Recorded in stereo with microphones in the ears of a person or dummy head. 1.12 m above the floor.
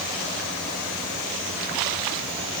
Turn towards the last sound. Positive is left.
No sound to turn to.